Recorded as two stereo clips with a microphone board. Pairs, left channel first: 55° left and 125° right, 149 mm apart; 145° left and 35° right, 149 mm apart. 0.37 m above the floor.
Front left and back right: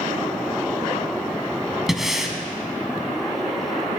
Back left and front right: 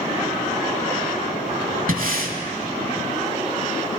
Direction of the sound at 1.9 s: 35° right.